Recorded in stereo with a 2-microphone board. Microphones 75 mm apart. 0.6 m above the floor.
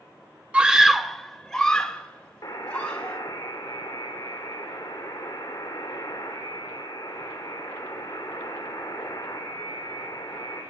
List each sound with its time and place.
0.5 s a scream: 15° right (ahead or behind), 1.1 m; by 3.2 s 15° left (ahead or behind), 4.5 m
2.4 s a buzzer: 45° left (ahead or behind), 6.5 m